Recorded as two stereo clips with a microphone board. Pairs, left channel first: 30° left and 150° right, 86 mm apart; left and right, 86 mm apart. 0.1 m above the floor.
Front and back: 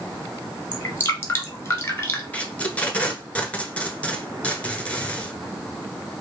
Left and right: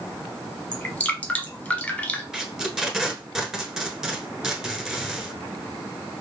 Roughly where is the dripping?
Ahead left.